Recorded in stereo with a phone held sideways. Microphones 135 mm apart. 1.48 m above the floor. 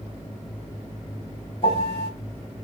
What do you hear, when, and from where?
1.6 s a piano: 45° left (ahead or behind), 1.9 m